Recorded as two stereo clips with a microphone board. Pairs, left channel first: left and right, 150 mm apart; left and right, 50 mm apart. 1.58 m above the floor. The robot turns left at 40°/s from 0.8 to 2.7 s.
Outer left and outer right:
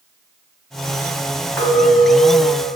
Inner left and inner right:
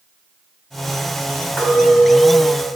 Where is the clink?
165° left, 1.4 m; by 2.7 s 125° left, 1.4 m.